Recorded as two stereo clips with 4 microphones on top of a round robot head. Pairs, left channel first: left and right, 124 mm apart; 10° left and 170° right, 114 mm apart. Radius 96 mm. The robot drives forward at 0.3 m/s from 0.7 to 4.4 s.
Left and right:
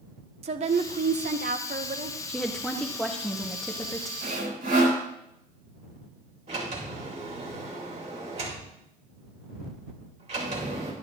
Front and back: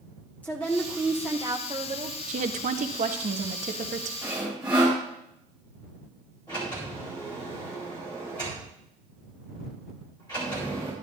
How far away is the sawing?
About 3.5 m.